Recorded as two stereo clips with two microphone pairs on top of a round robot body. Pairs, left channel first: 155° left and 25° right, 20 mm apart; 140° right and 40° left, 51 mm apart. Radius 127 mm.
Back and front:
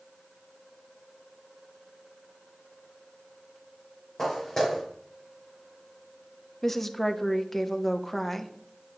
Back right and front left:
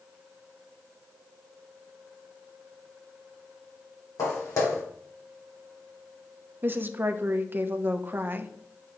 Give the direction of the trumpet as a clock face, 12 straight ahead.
I don't hear a trumpet.